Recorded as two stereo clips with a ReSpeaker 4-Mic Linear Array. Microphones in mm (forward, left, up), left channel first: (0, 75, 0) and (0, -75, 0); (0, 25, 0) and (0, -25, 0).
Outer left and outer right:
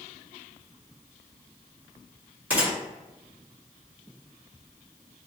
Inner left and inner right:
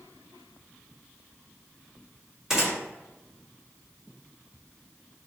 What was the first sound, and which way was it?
A gunshot, 10° right (ahead or behind).